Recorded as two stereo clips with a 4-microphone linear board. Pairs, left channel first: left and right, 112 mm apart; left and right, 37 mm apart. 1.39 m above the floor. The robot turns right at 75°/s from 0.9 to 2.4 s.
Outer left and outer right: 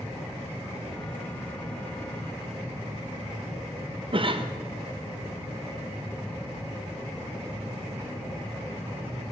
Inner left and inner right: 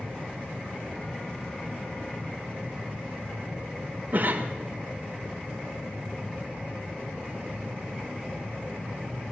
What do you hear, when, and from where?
4.1 s a cough: 50° right (ahead or behind), 0.6 m